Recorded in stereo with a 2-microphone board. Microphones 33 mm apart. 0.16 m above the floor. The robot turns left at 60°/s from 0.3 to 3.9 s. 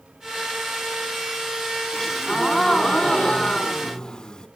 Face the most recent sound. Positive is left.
turn(degrees=25)  # may be behind; listen again after turning